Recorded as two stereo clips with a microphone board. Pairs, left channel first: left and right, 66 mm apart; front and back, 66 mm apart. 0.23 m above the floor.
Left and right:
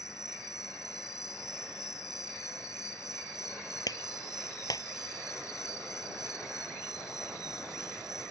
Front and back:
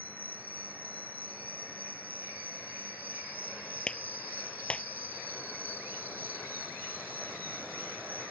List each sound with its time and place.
0.0 s an insect: 120° left
3.9 s a clap: 75° left